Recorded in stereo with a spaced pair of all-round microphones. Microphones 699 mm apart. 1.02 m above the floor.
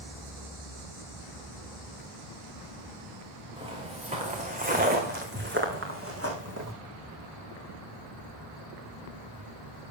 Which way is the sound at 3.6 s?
5° right (ahead or behind).